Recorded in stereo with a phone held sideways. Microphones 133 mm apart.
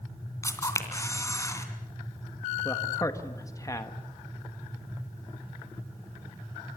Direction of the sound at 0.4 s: 20° left (ahead or behind).